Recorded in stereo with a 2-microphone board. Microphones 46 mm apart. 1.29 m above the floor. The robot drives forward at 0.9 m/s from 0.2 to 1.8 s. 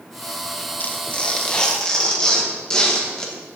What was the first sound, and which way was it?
Tearing paper, 40° left (ahead or behind).